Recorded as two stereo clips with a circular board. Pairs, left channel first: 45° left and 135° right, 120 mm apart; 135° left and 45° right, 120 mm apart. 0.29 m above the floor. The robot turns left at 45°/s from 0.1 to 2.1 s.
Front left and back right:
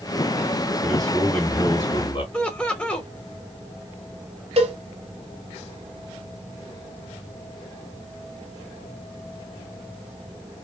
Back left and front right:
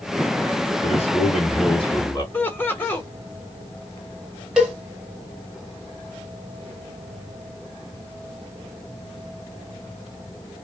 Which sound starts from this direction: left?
Laughter, at 2.3 s.